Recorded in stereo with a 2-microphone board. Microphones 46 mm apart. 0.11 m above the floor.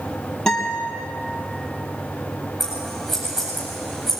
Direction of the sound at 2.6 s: 10° right (ahead or behind).